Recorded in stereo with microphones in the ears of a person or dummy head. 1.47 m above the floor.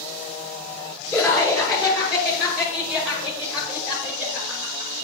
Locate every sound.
1.1 s laughter: 10° left (ahead or behind), 6.5 m; by 4.9 s 10° right (ahead or behind), 5.5 m